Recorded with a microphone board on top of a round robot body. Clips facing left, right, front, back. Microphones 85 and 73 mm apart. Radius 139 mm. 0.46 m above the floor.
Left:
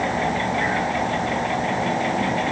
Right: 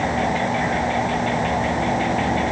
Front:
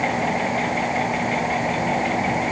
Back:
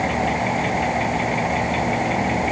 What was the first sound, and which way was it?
Only background noise.